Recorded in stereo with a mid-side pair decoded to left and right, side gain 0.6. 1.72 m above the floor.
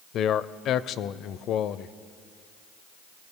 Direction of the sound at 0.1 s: 55° left.